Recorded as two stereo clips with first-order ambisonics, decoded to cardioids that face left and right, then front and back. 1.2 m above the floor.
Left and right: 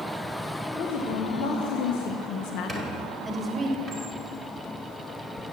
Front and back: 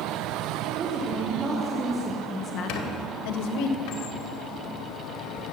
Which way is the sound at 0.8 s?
120° left.